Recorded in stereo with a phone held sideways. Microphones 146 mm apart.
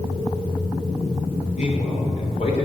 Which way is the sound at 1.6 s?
55° left (ahead or behind).